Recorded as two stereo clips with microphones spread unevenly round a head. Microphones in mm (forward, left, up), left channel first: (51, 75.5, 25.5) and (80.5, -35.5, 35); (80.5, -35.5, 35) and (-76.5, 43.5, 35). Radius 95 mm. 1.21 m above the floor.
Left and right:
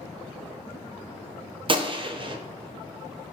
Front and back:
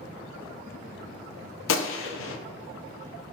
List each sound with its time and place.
1.7 s a gunshot: 25° right, 0.5 m